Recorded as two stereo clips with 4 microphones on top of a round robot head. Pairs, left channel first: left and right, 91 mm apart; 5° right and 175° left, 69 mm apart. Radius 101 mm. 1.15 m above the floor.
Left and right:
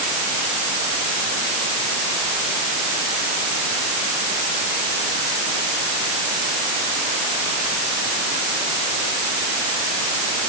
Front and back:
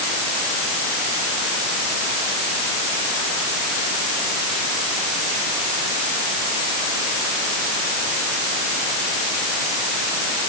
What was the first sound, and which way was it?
Only background noise.